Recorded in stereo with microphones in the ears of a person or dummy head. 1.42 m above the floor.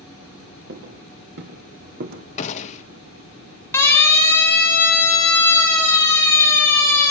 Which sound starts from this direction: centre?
A siren, at 3.7 s.